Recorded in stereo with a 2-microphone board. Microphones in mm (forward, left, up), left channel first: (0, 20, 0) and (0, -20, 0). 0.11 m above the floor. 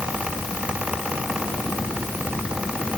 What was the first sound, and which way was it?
Only background noise.